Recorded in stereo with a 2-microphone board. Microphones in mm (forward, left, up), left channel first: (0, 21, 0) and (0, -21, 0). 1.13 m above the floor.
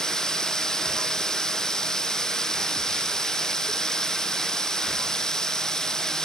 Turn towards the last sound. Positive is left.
turn(degrees=15)  # may be behind; listen again after turning